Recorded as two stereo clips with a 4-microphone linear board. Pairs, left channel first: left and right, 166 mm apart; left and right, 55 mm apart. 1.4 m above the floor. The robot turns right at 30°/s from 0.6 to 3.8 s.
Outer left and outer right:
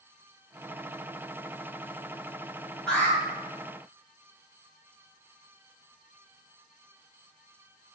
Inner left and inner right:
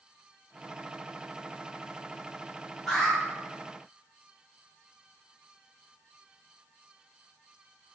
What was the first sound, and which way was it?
An alarm, 5° left (ahead or behind).